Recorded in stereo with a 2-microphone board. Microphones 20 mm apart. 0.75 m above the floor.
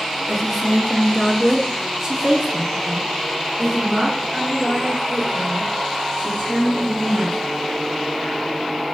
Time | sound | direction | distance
0.3 | a woman speaking | 25° left (ahead or behind) | 1.1 m